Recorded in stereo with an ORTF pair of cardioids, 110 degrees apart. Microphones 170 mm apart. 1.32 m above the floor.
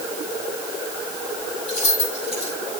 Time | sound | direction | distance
1.7 | keys jangling | 40° left | 6 m